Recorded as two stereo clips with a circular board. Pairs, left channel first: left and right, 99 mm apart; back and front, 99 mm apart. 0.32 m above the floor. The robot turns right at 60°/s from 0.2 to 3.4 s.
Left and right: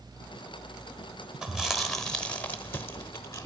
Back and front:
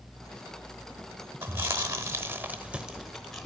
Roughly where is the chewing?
Ahead.